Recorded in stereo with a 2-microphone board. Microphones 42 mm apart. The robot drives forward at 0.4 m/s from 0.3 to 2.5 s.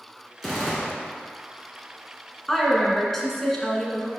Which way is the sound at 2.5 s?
5° left (ahead or behind).